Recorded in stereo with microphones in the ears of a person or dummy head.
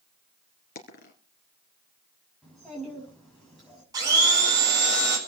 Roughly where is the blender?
Right.